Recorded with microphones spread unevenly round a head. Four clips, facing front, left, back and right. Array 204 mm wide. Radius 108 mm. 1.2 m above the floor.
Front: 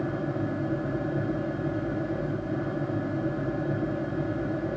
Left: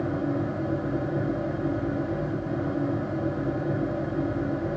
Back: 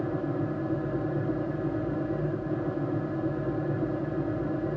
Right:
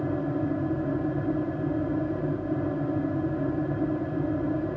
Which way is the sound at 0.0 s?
115° left.